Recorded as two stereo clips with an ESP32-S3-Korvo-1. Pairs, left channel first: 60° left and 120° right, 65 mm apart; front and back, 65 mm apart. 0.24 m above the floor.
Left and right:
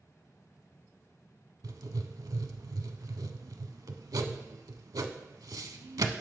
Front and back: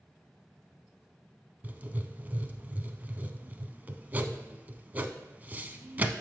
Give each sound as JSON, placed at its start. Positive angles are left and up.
{"t": 1.6, "sound": "writing", "azimuth_deg": -120, "distance_m": 0.5}